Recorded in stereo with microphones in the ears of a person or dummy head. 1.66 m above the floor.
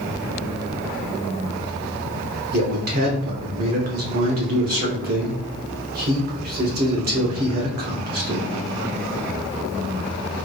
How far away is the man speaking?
About 1.0 m.